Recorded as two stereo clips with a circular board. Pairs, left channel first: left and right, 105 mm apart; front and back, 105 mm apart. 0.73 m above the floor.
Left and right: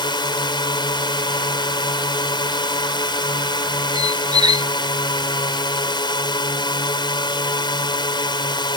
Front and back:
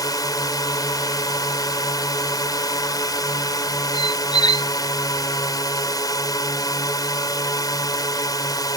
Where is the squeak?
45° right.